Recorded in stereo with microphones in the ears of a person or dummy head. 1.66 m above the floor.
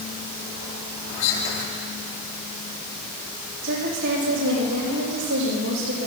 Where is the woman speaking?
80° right, 6 m.